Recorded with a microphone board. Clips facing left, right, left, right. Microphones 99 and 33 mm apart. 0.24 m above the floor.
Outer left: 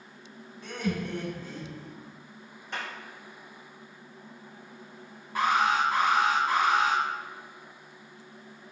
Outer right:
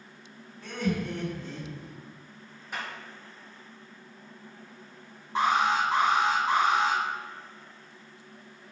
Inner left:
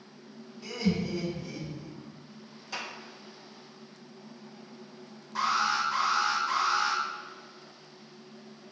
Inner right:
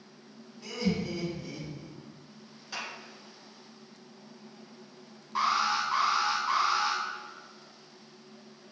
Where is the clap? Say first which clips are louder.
Even, even; 10° right (ahead or behind), 2.5 m.